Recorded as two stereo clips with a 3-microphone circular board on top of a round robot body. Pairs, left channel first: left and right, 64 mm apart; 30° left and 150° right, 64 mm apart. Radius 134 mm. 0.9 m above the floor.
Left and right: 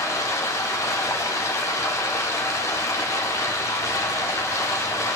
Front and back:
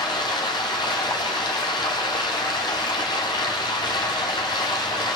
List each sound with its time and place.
0.0 s running water: 40° left, 1.1 m